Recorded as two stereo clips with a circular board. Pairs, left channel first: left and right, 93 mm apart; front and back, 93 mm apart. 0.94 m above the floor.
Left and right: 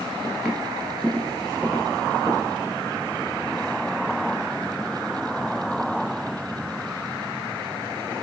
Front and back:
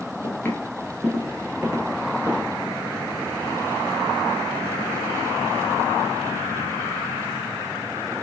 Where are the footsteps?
20° right, 1.0 m; by 2.5 s 155° right, 1.3 m.